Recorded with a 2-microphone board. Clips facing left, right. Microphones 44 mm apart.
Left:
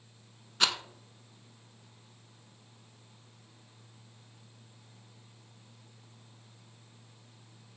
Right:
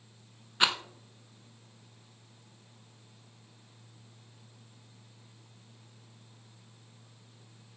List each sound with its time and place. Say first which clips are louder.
0.6 s a rattle: right 2 dB; 20° right (ahead or behind), 0.7 m